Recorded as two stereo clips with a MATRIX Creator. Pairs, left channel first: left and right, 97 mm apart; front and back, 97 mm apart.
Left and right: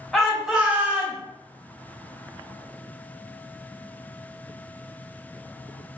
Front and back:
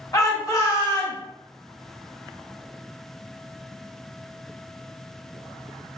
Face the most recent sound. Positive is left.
turn(degrees=-40)